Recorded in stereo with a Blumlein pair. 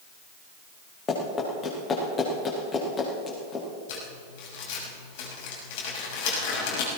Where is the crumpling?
50° left, 5.5 m.